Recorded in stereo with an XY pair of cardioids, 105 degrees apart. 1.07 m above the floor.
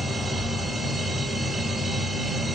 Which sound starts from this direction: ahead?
A machine running, at 0.0 s.